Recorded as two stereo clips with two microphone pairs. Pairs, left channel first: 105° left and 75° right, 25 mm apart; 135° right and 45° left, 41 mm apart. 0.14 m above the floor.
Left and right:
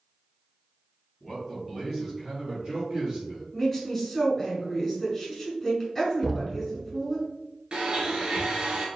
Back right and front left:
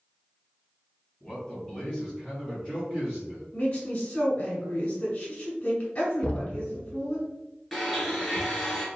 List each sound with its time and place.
1.2 s a man speaking: 175° left, 1.8 m; by 3.4 s 5° right, 2 m
3.5 s a woman speaking: 175° right, 1.3 m
6.2 s knocking: 155° right, 0.8 m
7.7 s a blender: 45° right, 0.9 m